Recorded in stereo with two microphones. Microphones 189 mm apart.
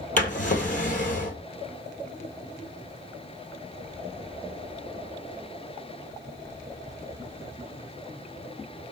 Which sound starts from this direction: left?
A drawer, at 0.2 s.